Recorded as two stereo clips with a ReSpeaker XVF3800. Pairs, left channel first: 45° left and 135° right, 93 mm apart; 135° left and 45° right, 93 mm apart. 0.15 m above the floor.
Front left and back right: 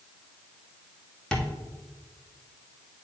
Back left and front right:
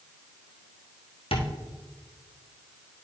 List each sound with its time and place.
1.3 s tapping: 125° left, 1.4 m